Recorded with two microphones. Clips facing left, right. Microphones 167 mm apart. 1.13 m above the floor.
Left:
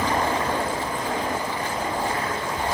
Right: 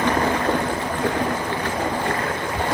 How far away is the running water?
About 4 m.